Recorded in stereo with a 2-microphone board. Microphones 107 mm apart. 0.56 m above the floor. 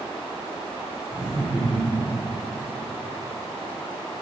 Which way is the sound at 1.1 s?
15° right (ahead or behind).